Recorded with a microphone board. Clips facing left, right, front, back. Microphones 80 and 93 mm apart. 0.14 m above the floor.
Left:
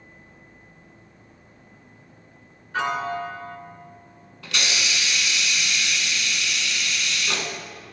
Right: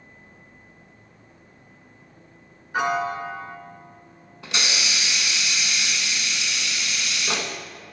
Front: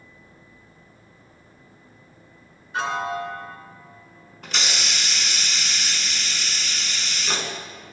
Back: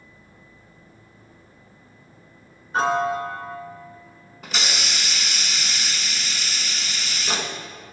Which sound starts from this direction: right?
A hiss, at 4.4 s.